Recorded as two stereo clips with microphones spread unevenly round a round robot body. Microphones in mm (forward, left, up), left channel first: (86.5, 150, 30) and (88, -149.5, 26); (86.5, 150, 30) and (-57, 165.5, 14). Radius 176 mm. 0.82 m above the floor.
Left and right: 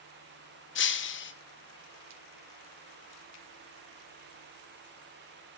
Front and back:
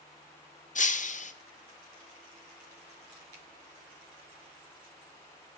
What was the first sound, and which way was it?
Breaking glass, 35° left.